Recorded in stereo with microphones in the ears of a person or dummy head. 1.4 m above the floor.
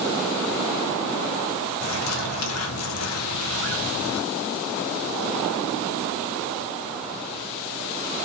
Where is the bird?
80° left, 1.2 m.